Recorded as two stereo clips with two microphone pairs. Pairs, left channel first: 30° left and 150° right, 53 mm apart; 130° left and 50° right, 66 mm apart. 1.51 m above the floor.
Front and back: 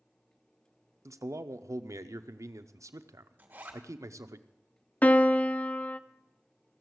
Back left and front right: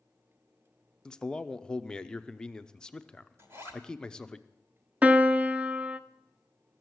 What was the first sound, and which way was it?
A man speaking, 155° right.